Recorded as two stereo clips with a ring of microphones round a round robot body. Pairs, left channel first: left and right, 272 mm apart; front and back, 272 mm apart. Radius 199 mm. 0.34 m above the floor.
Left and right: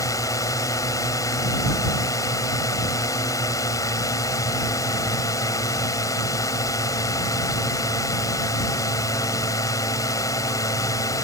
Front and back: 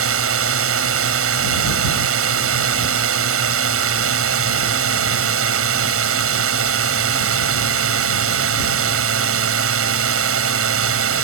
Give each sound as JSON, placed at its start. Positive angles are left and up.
{"t": 0.0, "sound": "a drone", "azimuth_deg": 170}